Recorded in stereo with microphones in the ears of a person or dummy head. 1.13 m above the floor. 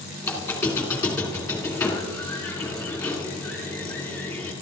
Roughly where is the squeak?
Centre.